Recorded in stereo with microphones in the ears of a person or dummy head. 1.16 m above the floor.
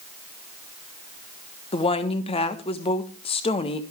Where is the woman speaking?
30° left (ahead or behind), 1.3 m.